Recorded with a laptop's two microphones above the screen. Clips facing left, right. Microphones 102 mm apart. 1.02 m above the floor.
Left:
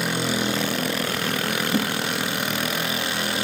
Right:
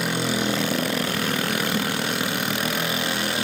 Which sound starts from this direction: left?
A whoosh, at 1.7 s.